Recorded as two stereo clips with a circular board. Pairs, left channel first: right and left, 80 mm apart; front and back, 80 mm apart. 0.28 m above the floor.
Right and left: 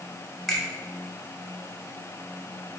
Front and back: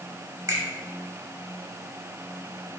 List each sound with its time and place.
0.5 s a finger snap: 175° right, 1.0 m